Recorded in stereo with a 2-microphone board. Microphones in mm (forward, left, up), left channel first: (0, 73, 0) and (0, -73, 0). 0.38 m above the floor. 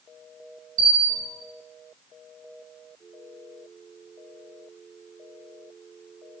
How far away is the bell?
About 3.5 m.